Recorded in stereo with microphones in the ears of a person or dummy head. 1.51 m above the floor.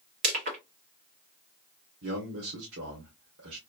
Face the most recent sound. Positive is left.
turn(degrees=-80)